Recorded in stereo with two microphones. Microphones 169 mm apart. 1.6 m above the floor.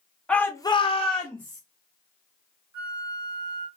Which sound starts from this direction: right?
A flute, at 2.7 s.